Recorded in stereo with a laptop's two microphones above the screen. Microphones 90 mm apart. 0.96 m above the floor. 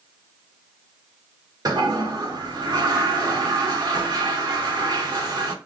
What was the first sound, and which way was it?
A toilet flushing, 45° right (ahead or behind).